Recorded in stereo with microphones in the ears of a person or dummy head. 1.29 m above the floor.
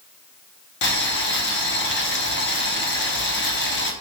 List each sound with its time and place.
0.8 s boiling: 55° left (ahead or behind), 0.9 m